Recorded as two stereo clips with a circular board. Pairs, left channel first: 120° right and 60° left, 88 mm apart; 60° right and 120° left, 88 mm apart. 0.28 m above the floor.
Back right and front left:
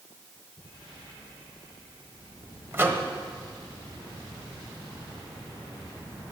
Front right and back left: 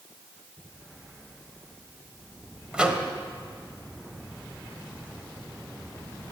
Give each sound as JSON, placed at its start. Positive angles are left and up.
{"t": 2.7, "sound": "a microwave", "azimuth_deg": 55, "distance_m": 1.3}